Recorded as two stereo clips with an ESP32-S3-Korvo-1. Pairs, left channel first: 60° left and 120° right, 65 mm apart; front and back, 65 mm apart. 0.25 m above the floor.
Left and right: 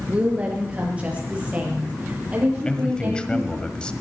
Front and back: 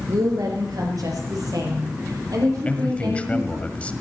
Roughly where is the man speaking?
Ahead.